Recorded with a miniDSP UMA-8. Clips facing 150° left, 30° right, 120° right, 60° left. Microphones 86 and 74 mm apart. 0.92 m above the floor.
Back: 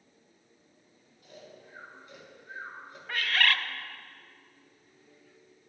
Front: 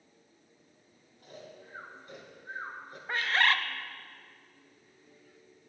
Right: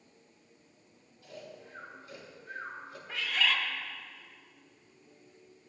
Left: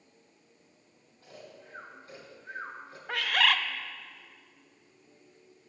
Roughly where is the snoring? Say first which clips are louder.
Front 2 dB, right 2 dB; ahead.